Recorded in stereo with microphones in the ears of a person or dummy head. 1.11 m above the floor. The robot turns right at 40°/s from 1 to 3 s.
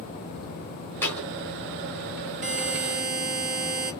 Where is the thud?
10° left (ahead or behind), 1.5 m; by 1.3 s centre (ahead or behind), 1.5 m.